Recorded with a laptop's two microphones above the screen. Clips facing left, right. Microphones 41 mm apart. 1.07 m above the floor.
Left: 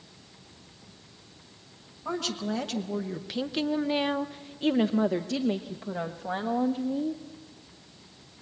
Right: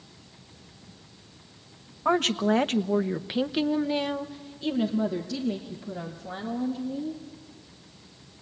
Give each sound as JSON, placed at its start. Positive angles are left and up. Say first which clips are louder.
{"t": 2.0, "sound": "a woman speaking", "louder": "right 8 dB", "side_deg": -55, "distance_m": 1.2}